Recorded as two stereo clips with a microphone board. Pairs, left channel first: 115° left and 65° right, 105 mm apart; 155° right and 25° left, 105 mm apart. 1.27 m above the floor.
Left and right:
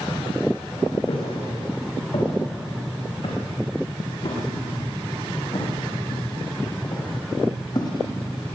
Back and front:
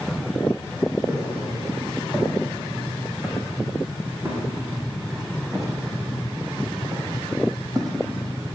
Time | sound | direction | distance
1.1 | footsteps | 95° left | 6 m